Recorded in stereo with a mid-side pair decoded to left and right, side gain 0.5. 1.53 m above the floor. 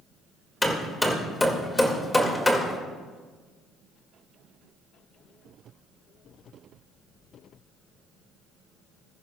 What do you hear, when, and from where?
0.6 s hammering: 15° left, 1.9 m